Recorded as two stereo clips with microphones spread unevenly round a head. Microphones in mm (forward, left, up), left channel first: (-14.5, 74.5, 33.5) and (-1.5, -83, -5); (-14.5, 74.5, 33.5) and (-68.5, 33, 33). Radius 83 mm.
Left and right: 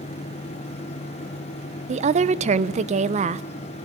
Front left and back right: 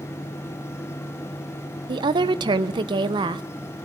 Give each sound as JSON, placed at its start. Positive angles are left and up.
{"t": 1.9, "sound": "a woman speaking", "azimuth_deg": -135, "distance_m": 1.3}